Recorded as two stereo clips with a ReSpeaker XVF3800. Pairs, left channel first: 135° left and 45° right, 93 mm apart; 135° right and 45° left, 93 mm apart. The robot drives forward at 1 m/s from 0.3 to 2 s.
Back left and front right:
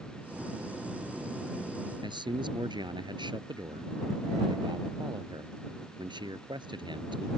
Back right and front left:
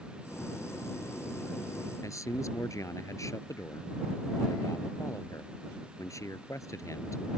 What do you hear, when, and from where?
2.0 s a man speaking: 80° right